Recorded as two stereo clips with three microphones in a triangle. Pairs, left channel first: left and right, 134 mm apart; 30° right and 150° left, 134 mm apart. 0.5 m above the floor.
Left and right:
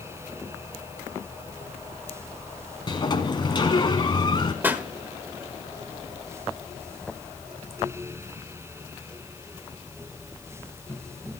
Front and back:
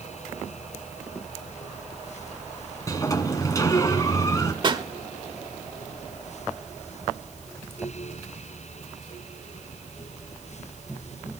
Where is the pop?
165° right, 1.6 m.